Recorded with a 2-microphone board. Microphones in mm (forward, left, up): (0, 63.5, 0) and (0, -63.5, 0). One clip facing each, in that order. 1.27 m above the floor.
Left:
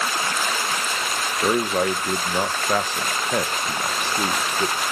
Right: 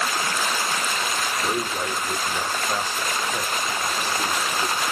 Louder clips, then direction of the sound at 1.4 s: Left 9 dB; 75° left (ahead or behind).